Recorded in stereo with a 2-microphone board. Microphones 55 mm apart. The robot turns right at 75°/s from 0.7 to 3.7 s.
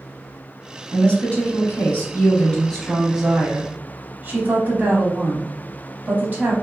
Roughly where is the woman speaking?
Ahead left.